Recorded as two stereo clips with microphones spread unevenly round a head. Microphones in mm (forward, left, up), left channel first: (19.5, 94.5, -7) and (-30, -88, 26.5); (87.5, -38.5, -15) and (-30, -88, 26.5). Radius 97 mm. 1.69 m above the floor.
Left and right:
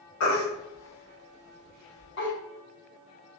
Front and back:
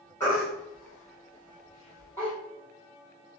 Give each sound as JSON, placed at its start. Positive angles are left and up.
{"t": 0.2, "sound": "a baby crying", "azimuth_deg": 105, "distance_m": 1.3}